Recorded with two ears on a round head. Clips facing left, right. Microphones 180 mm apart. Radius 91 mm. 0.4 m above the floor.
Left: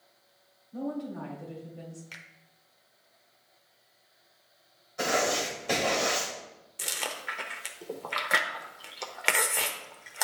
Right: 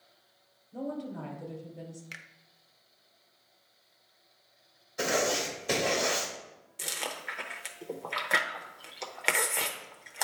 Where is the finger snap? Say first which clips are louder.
Even; 20° right (ahead or behind), 0.6 m.